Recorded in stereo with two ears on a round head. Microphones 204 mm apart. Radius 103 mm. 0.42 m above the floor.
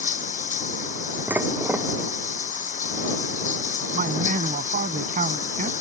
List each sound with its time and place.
0.0 s running water: 35° left (ahead or behind)
1.3 s dishes clattering: 10° right (ahead or behind)
3.9 s a man speaking: 35° right (ahead or behind)